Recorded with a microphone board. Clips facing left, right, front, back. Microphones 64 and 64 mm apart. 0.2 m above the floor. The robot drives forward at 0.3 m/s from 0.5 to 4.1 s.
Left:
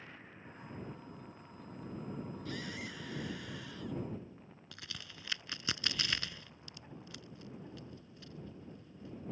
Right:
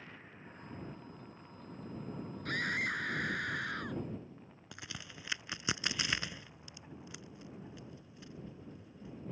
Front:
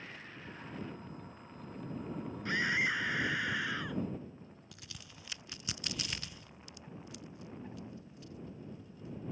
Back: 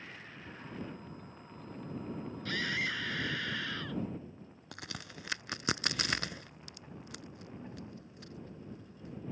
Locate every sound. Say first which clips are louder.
2.5 s a scream: right 13 dB, front 3 dB; 65° right; by 4.0 s 75° right
4.7 s a crack: right 3 dB, back 8 dB; 160° right